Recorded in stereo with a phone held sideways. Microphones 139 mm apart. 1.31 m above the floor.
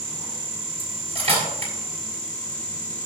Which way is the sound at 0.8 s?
45° right (ahead or behind).